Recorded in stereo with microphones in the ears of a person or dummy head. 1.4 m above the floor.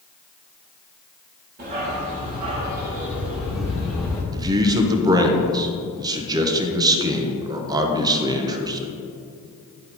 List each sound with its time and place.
1.6 s a dog barking: 40° right (ahead or behind), 1.3 m; by 4.2 s 5° left (ahead or behind), 1.7 m
4.3 s a man speaking: 20° right (ahead or behind), 0.7 m